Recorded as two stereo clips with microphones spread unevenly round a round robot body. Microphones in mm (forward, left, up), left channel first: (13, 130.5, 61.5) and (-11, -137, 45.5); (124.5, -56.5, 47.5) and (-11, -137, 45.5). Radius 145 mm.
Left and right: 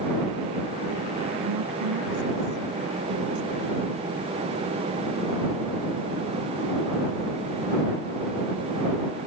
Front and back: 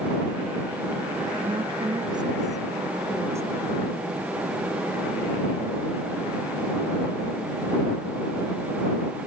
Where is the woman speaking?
95° right; by 3.8 s 75° right.